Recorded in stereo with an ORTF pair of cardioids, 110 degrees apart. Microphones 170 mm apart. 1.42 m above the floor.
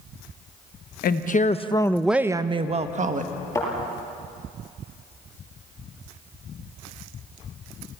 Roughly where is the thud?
Ahead.